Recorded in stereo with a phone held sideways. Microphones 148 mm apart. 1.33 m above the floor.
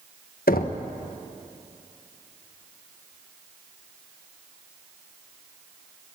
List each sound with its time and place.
0.5 s knocking: 80° left, 1.0 m